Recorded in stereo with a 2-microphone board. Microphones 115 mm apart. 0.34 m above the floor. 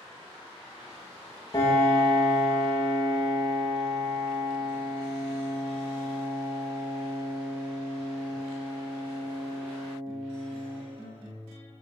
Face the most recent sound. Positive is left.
turn(degrees=35)  # may be behind; listen again after turning